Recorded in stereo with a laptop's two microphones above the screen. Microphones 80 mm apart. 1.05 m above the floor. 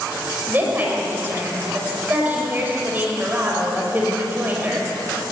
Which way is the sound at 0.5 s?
25° right (ahead or behind).